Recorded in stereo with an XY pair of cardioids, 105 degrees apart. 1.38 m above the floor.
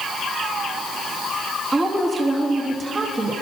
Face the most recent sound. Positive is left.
turn(degrees=-25)